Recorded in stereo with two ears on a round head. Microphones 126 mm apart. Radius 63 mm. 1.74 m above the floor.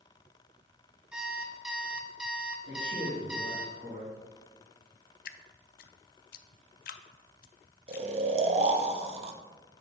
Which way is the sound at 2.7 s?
65° right (ahead or behind).